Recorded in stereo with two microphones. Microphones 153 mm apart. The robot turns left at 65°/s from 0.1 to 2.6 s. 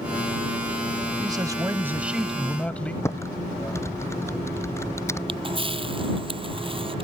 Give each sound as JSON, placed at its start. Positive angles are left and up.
{"t": 1.2, "sound": "a man speaking", "side_deg": -25}
{"t": 3.0, "sound": "typing on a keyboard", "side_deg": 15}
{"t": 5.3, "sound": "a camera shutter", "side_deg": -35}